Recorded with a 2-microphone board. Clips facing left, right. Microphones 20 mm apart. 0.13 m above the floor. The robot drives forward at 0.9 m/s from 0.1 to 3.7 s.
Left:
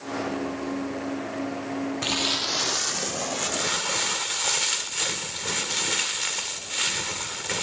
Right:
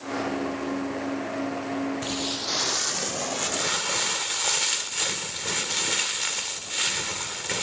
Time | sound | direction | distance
2.0 | crumpling | 65° left (ahead or behind) | 0.6 m